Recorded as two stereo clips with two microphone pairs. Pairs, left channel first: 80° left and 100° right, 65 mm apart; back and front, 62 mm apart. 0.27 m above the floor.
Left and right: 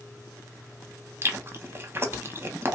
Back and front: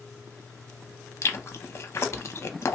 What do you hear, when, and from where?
1.2 s chewing: 145° right, 0.6 m